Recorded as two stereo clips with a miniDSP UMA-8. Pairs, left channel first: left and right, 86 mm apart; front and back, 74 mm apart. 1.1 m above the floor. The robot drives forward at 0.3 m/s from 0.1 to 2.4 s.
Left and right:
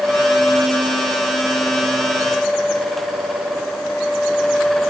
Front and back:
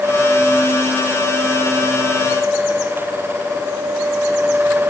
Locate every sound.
Only background noise.